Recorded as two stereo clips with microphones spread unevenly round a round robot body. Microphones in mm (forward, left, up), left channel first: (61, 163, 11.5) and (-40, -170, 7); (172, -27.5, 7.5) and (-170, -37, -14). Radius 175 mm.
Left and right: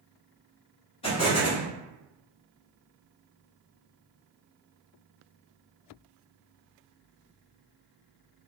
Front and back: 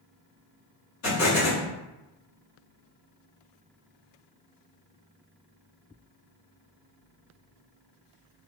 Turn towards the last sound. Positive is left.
turn(degrees=10)